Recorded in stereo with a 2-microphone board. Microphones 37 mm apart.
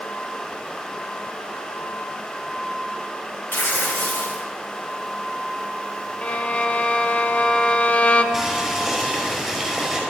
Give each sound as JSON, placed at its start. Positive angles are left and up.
{"t": 3.5, "sound": "tearing paper", "side_deg": 70, "distance_m": 2.5}
{"t": 6.2, "sound": "a violin", "side_deg": 35, "distance_m": 0.7}
{"t": 8.3, "sound": "boiling", "side_deg": 5, "distance_m": 5.0}